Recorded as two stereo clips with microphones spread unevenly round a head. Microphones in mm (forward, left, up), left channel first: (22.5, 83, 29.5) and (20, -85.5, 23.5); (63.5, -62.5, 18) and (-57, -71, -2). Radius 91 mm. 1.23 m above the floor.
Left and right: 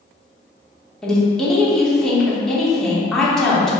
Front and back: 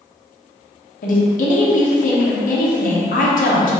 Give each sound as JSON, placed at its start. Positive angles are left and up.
{"t": 1.0, "sound": "a woman speaking", "azimuth_deg": 0, "distance_m": 1.0}